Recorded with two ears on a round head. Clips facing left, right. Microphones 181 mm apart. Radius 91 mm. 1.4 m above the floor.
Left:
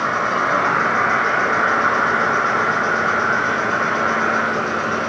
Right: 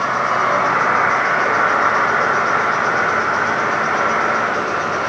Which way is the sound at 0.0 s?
25° left (ahead or behind).